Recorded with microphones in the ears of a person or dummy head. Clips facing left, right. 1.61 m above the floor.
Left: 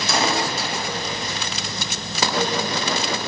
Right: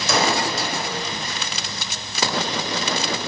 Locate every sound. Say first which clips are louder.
0.1 s a gunshot: right 2 dB; 75° right (ahead or behind), 7.5 m